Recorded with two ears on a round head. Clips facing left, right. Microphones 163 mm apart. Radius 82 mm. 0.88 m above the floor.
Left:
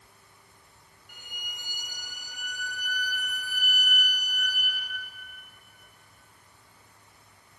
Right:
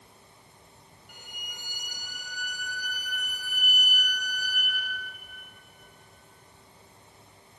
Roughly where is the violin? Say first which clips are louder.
Even; right.